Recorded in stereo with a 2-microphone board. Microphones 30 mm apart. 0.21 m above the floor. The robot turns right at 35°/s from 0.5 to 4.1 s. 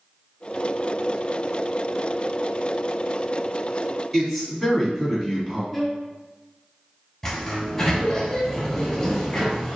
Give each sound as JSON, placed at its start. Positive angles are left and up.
{"t": 4.1, "sound": "a man speaking", "side_deg": -5, "distance_m": 1.3}
{"t": 5.7, "sound": "a violin", "side_deg": 0, "distance_m": 0.8}
{"t": 7.2, "sound": "a sliding door", "side_deg": 15, "distance_m": 1.1}